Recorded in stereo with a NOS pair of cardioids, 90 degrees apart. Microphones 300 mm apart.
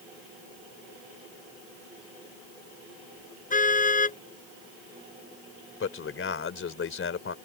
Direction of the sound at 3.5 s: 25° left.